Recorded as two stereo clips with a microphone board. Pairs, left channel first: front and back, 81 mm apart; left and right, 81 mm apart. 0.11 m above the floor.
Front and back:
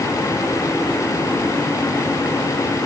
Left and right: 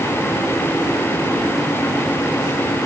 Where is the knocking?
I don't hear knocking.